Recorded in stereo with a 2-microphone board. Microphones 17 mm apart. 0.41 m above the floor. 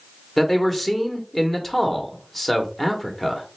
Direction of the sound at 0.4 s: 20° left (ahead or behind).